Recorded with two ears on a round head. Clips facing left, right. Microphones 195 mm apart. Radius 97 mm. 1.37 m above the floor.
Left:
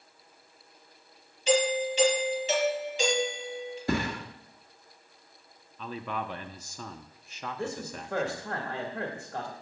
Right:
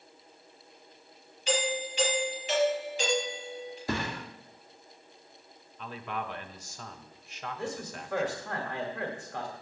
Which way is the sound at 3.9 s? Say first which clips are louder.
Left 4 dB; 45° left (ahead or behind).